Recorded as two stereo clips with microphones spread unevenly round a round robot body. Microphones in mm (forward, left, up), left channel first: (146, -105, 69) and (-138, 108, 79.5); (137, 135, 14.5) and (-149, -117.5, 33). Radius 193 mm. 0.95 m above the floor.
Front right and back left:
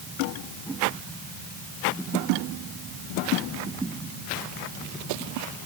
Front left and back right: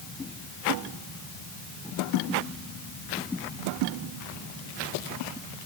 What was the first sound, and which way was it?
Only background noise.